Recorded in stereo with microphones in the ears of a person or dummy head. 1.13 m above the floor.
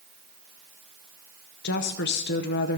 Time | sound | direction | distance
1.6 | a woman speaking | 50° left (ahead or behind) | 0.7 m